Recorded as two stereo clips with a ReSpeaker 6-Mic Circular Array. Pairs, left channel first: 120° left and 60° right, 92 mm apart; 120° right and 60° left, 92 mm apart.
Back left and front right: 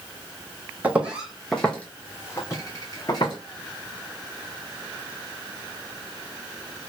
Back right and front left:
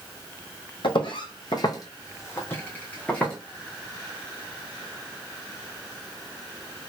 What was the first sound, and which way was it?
Footsteps, 130° right.